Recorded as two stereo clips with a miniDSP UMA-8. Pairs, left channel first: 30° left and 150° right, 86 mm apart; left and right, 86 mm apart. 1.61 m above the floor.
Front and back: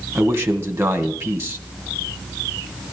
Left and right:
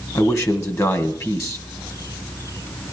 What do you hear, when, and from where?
0.1 s a man speaking: 145° left, 1.8 m